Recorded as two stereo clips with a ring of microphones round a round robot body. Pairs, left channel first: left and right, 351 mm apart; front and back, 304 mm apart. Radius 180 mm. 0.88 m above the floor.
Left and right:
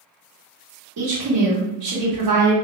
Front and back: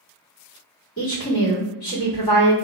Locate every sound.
1.0 s a woman speaking: 50° right, 1.3 m